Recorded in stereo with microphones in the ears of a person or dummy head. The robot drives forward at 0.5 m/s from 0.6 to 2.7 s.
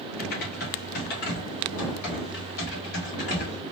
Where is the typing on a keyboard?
50° left (ahead or behind), 3 m; by 3.6 s 70° left (ahead or behind), 2.5 m.